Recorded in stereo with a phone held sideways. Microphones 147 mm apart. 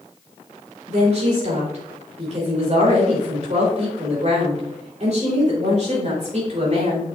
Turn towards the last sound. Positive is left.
turn(degrees=-50)  # may be behind; listen again after turning